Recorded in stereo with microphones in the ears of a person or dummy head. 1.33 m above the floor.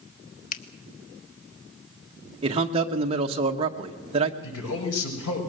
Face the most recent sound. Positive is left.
turn(degrees=85)